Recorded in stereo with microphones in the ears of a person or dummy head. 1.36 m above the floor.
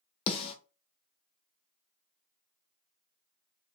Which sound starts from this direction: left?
A snare drum, at 0.3 s.